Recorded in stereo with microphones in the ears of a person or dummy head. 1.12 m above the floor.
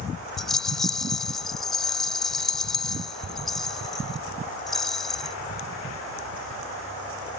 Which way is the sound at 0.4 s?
5° left (ahead or behind).